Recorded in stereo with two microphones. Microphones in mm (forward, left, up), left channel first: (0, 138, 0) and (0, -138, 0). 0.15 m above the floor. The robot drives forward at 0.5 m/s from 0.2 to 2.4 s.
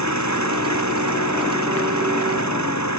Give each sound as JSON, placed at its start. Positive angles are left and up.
{"t": 0.0, "sound": "an engine running", "side_deg": 80}